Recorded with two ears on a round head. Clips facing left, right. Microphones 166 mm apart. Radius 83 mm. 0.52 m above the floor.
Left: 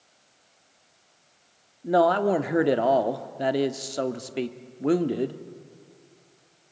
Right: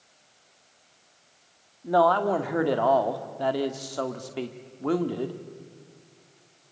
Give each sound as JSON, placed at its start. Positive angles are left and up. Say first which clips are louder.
{"t": 1.8, "sound": "a man speaking", "louder": "left 1 dB", "side_deg": 25, "distance_m": 1.1}